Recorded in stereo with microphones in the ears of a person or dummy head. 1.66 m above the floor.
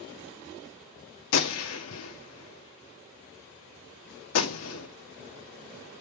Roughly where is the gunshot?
Left.